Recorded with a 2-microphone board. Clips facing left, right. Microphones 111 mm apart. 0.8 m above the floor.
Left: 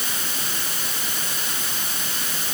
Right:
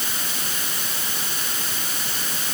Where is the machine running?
No machine running in this recording.